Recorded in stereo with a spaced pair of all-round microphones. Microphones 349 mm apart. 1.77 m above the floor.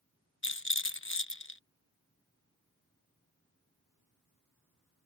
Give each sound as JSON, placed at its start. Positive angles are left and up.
{"t": 0.4, "sound": "a rattle", "side_deg": 35}